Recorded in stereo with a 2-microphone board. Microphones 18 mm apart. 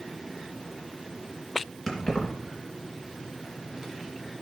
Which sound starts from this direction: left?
Keys jangling, at 1.9 s.